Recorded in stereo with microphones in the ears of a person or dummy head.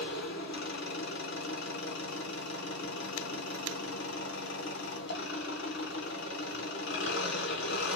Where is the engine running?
70° left (ahead or behind), 1.1 m.